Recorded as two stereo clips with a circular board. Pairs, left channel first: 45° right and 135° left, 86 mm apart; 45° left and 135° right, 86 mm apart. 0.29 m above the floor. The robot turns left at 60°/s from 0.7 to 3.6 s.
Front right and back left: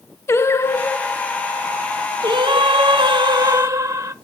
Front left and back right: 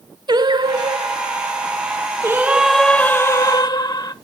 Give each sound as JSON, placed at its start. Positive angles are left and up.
{"t": 0.3, "sound": "singing", "azimuth_deg": -105, "distance_m": 0.5}